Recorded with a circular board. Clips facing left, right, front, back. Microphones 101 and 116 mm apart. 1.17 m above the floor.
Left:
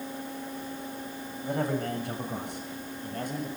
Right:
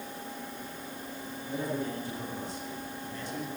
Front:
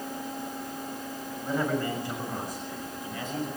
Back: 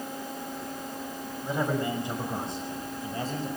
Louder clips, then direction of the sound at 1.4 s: Left 4 dB, even; 105° left.